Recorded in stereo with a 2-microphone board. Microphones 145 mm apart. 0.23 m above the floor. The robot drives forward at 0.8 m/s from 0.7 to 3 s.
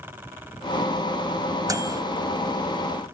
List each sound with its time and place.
1.7 s a microwave: 25° right (ahead or behind), 0.8 m